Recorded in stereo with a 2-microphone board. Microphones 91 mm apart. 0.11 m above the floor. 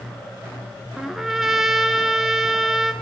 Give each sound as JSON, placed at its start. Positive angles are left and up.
{"t": 1.0, "sound": "a trumpet", "side_deg": -5, "distance_m": 0.6}